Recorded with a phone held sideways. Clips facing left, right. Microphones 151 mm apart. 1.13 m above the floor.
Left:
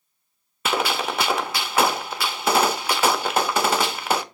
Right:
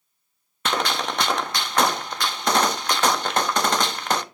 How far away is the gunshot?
About 0.6 m.